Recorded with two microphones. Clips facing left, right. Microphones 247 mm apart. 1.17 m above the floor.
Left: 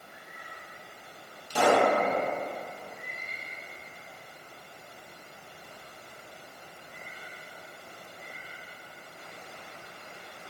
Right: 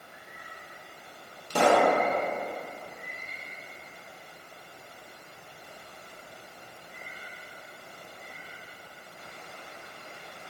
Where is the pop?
60° right (ahead or behind), 0.6 m.